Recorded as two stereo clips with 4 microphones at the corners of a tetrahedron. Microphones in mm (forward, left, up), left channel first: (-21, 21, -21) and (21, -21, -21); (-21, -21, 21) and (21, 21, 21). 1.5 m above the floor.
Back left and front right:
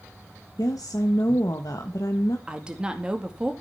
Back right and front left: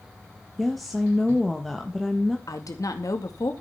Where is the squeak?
No squeak in this recording.